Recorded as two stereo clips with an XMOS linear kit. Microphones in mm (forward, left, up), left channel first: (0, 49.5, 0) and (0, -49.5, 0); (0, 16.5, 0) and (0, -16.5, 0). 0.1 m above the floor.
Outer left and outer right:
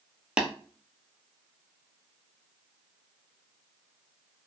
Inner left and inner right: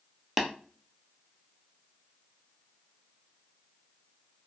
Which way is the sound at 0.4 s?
10° right (ahead or behind).